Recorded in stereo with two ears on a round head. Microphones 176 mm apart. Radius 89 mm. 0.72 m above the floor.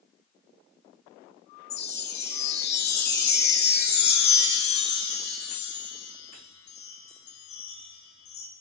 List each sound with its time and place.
1.7 s a chime: 65° left (ahead or behind), 3.5 m